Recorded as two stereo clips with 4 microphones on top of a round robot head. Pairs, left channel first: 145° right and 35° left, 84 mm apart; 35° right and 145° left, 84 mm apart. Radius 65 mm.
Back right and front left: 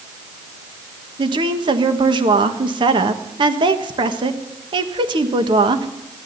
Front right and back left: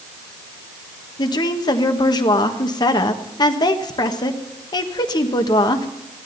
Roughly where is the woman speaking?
Ahead.